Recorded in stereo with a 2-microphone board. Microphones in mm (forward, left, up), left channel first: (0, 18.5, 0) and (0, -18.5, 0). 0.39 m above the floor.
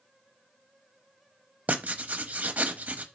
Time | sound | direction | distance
1.7 | writing | 45° right (ahead or behind) | 0.7 m